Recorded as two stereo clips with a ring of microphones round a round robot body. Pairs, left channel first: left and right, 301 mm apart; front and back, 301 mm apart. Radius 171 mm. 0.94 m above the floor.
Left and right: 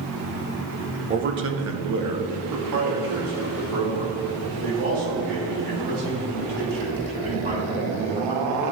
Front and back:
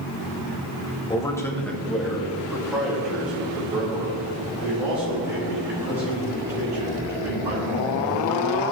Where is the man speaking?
55° right, 0.9 m; by 8.5 s 100° right, 9 m.